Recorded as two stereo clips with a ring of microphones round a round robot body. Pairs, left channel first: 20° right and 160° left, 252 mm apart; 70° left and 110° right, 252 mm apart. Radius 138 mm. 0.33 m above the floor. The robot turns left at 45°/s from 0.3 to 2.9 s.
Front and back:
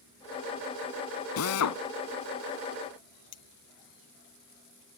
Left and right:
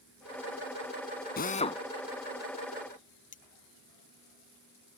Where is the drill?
15° left; by 1.8 s 10° right.